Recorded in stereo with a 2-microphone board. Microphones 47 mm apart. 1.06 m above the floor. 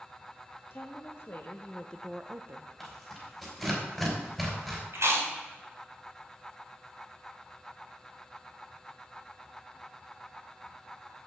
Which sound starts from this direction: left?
A woman speaking, at 0.7 s.